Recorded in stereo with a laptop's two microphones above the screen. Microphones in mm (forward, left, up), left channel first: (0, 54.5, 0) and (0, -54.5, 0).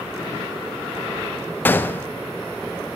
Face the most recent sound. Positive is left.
turn(degrees=20)  # may be behind; listen again after turning